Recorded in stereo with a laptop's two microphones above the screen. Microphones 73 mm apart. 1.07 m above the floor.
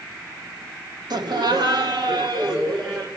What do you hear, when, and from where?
1.1 s laughter: 70° right (ahead or behind), 1.2 m; by 3.1 s 85° right, 3.5 m